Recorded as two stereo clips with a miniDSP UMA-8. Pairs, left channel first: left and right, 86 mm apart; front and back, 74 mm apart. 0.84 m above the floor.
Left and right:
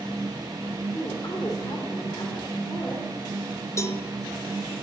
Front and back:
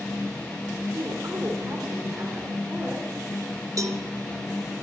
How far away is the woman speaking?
About 2.5 m.